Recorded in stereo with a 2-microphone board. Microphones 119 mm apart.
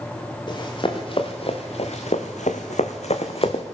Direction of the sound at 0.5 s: 40° left (ahead or behind).